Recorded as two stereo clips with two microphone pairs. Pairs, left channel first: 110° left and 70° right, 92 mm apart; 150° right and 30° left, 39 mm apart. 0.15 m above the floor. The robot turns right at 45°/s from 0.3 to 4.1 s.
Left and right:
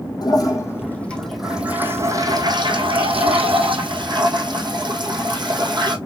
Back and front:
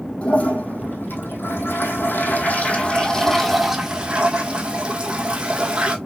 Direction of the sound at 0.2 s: 155° left.